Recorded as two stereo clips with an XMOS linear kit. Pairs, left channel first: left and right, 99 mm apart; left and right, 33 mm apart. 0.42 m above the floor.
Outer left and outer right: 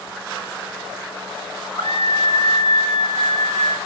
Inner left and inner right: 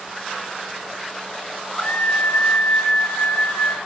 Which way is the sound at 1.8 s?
65° left (ahead or behind).